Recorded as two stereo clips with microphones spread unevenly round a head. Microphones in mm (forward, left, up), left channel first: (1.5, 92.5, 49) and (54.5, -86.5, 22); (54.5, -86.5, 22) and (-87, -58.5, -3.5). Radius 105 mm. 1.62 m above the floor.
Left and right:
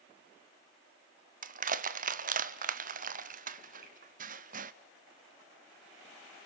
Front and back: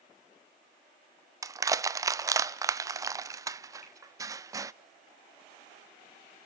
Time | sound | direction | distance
1.4 | crushing | 125° right | 0.7 m
3.8 | a finger snap | 40° right | 8 m